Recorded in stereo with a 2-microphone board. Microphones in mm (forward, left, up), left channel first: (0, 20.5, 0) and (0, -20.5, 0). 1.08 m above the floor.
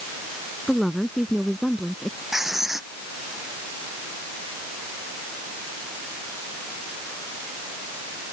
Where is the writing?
10° right (ahead or behind).